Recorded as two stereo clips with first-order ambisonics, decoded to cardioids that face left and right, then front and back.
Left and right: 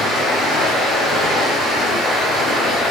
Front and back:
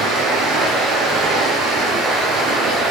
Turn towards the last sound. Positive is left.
turn(degrees=170)